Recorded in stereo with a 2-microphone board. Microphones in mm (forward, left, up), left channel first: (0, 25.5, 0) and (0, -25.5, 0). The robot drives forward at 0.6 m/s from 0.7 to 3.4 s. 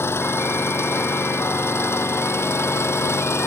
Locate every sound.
0.0 s an engine running: 55° left (ahead or behind); by 3.5 s 60° left (ahead or behind)